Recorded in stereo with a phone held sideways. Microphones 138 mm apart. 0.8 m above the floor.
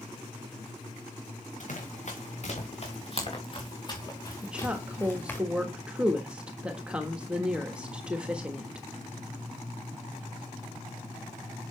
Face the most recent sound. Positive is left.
turn(degrees=-10)  # may be behind; listen again after turning